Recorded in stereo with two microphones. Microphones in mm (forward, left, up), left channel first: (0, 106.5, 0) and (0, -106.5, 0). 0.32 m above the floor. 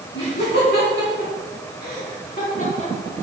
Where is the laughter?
70° left (ahead or behind), 3 m; by 3.2 s 30° left (ahead or behind), 2.5 m.